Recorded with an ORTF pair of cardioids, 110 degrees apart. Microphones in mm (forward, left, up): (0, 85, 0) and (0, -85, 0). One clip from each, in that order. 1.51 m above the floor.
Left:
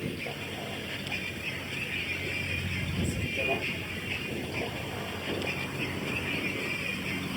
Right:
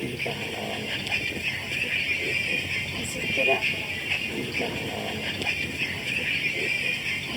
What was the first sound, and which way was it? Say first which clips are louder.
A vehicle: right 6 dB; 45° right.